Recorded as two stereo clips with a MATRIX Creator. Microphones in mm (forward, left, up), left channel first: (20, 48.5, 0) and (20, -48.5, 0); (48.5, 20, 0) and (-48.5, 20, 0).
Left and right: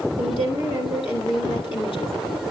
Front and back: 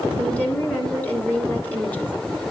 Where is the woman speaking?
70° left, 2.5 m.